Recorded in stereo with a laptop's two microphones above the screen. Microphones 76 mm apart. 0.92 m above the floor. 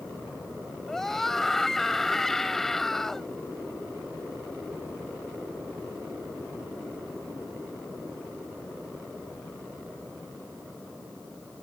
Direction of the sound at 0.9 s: 5° left (ahead or behind).